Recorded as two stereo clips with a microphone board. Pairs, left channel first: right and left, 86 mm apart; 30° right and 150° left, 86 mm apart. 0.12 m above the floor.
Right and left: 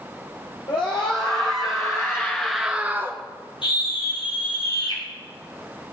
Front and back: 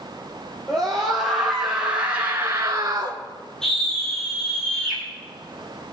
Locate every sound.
0.7 s a scream: 110° right, 3.5 m; by 3.2 s 135° left, 1.8 m
3.6 s a scream: 115° right, 5 m